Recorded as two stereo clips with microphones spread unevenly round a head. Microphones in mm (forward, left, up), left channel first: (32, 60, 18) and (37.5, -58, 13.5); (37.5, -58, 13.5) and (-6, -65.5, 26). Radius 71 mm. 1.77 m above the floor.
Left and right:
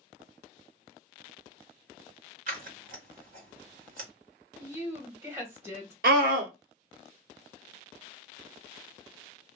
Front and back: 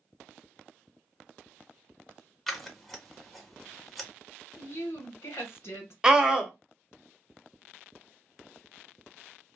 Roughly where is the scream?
Right.